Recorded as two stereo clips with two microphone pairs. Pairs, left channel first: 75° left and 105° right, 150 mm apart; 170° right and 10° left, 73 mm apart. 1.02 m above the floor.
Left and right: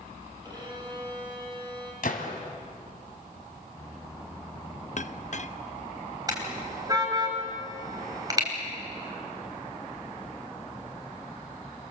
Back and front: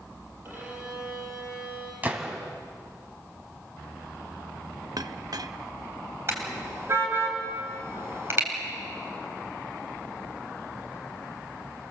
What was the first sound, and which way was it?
A violin, 45° right.